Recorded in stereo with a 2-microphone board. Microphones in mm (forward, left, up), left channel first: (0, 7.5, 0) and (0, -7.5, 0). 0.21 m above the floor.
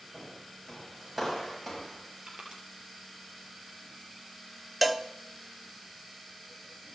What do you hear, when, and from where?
0.1 s footsteps: 10° right (ahead or behind), 9 m; by 2.2 s centre (ahead or behind), 7 m
2.3 s crushing: 65° right (ahead or behind), 4.5 m
4.8 s a cowbell: 10° right (ahead or behind), 0.7 m